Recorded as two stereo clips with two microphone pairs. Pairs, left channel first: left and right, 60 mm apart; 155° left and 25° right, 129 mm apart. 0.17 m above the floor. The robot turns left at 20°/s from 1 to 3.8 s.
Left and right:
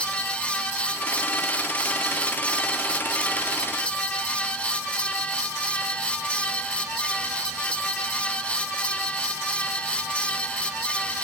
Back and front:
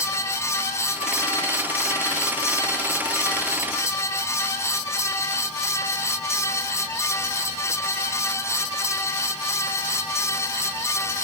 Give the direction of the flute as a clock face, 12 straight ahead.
I don't hear a flute.